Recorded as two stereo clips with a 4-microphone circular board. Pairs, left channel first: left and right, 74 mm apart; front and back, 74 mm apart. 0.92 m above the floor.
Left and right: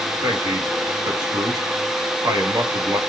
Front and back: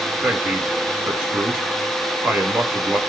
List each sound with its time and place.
0.2 s a man speaking: 110° right, 1.9 m